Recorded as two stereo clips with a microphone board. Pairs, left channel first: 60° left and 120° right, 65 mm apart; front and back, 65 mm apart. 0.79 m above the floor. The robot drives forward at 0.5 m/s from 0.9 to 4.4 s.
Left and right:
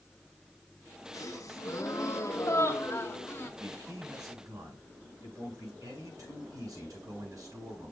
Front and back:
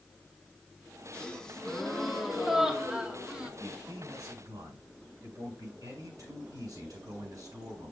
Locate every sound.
1.1 s a gasp: 70° left, 1.9 m; by 3.5 s 110° left, 1.9 m
3.6 s a man speaking: 150° right, 6.5 m